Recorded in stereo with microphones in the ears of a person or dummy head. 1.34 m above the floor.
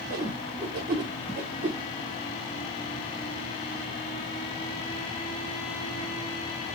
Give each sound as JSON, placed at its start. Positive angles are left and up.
{"t": 0.1, "sound": "a whoosh", "side_deg": -20, "distance_m": 1.0}